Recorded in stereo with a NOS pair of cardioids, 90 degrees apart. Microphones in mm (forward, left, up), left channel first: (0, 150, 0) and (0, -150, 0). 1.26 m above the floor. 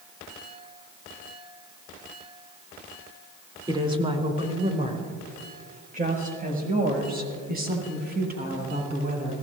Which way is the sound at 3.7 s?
15° right.